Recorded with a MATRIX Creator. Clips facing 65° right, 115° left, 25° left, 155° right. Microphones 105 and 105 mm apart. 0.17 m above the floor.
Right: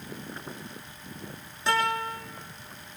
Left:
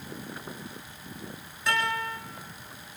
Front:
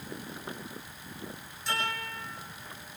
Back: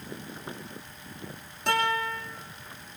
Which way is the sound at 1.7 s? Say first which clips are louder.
Right 2 dB, back 8 dB; 130° right.